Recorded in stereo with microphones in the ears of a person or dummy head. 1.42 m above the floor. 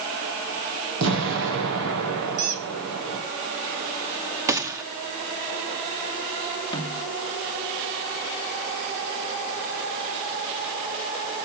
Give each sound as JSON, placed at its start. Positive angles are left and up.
{"t": 1.0, "sound": "an explosion", "side_deg": -70, "distance_m": 9.0}
{"t": 2.4, "sound": "a squeak", "side_deg": -45, "distance_m": 3.0}
{"t": 4.5, "sound": "a gunshot", "side_deg": -15, "distance_m": 2.5}
{"t": 6.7, "sound": "a snare drum", "side_deg": 25, "distance_m": 4.0}